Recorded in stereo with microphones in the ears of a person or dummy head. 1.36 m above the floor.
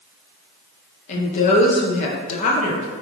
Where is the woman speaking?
40° left (ahead or behind), 0.7 m.